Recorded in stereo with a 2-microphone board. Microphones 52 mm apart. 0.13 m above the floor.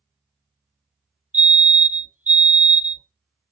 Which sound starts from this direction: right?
A fire alarm, at 1.3 s.